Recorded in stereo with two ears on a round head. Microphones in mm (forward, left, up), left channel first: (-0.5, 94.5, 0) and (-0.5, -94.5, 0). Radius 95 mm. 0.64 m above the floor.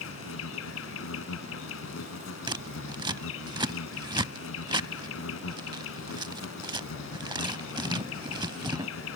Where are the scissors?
20° right (ahead or behind).